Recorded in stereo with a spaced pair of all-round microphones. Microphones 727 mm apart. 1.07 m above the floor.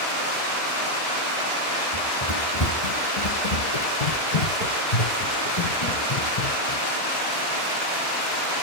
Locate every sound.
1.9 s running footsteps: 25° left (ahead or behind), 2 m; by 6.8 s 35° left (ahead or behind), 3.5 m